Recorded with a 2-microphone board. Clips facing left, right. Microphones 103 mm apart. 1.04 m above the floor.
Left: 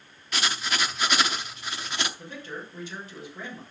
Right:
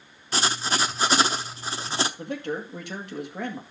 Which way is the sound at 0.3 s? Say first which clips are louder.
Right 3 dB; 30° right (ahead or behind).